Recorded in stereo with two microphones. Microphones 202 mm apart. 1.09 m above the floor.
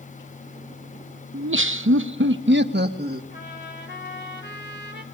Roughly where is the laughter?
Right.